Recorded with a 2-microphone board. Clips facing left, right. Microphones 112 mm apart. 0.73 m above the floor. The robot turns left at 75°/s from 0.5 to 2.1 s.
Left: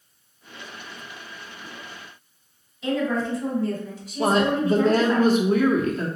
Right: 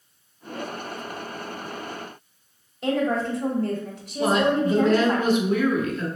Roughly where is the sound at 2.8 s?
Right.